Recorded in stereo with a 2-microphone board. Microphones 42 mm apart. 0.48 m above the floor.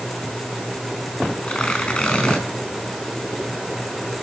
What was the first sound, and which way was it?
Tearing paper, 15° left (ahead or behind).